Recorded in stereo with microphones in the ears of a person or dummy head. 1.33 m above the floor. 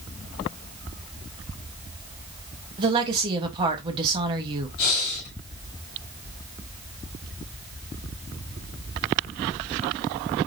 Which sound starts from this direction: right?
A woman speaking, at 2.8 s.